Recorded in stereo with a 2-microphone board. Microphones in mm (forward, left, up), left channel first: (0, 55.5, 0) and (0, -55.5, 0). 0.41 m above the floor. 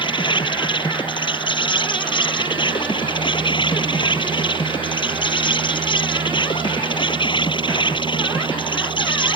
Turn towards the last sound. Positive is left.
turn(degrees=50)  # may be behind; listen again after turning